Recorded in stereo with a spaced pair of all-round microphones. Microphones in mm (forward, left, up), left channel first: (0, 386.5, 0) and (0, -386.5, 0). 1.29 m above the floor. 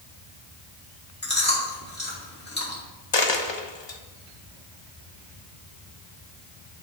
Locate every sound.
1.2 s chewing: 15° left (ahead or behind), 2.5 m
3.1 s a dropped coin: 35° left (ahead or behind), 0.9 m